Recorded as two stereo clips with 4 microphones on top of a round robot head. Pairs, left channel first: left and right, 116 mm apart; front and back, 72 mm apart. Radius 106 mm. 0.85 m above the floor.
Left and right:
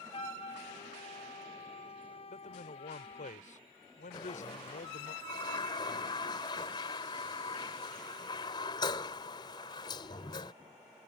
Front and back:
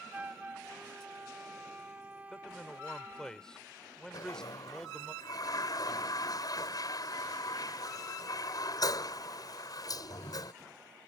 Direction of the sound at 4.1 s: 30° left.